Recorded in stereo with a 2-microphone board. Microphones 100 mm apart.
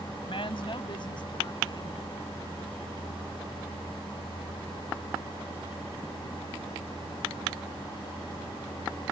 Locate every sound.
0.2 s a woman speaking: 65° left (ahead or behind); by 2.6 s 40° left (ahead or behind)